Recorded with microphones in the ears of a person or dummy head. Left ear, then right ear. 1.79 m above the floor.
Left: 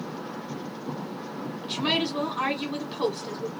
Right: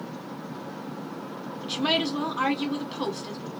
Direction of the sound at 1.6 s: 5° right (ahead or behind).